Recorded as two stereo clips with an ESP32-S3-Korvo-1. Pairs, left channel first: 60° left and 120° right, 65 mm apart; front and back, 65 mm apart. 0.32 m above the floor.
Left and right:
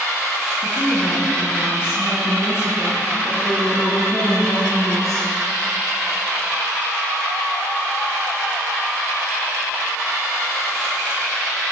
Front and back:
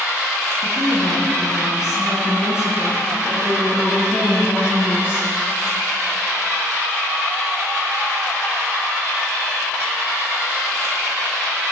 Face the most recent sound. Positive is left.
turn(degrees=50)